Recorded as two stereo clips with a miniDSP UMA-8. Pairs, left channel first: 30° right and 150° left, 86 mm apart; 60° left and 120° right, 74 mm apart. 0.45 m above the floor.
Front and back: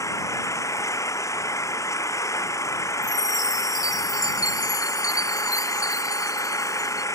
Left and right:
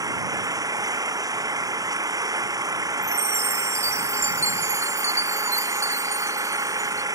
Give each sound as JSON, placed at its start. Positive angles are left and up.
{"t": 0.0, "sound": "an engine running", "azimuth_deg": -85}
{"t": 3.0, "sound": "a chime", "azimuth_deg": -75}